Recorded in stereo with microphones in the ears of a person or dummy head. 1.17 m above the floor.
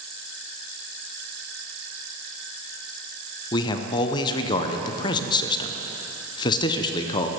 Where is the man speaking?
25° left (ahead or behind), 0.7 m.